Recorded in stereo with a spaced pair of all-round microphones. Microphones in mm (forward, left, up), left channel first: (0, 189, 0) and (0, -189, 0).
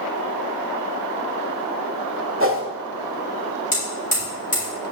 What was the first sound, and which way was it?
A whoosh, 35° right (ahead or behind).